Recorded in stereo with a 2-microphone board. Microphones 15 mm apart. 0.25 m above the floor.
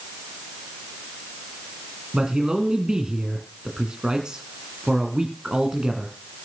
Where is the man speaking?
60° right (ahead or behind), 2.5 m.